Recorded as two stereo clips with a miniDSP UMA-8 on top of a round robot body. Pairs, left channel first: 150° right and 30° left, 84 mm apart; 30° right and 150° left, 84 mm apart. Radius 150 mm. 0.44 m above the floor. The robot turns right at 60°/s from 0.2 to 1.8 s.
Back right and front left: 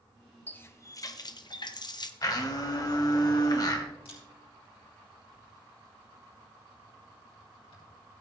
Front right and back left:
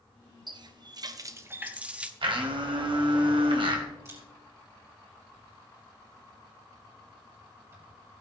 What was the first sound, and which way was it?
A running tap, 140° left.